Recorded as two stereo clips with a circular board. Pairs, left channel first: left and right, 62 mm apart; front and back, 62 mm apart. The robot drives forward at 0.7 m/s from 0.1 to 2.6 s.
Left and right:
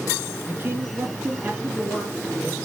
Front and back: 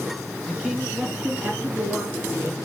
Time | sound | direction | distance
0.5 | a man speaking | 95° right | 1.9 m